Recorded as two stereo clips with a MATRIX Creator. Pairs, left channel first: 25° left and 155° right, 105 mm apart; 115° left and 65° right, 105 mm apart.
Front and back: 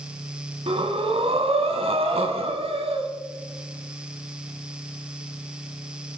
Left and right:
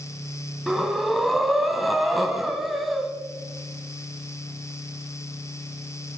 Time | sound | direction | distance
0.7 | breathing | 155° right | 2 m